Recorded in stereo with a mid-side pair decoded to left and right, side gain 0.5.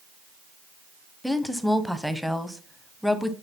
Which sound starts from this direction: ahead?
A woman speaking, at 1.2 s.